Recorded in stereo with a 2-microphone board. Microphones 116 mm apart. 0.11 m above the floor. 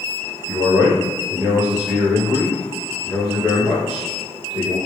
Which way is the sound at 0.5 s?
5° right (ahead or behind).